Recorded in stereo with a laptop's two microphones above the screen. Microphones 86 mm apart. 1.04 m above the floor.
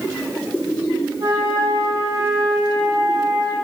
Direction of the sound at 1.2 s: 70° right (ahead or behind).